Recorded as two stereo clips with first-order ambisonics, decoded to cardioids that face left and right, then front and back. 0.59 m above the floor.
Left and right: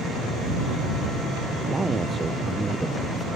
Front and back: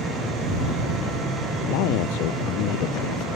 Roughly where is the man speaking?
Ahead.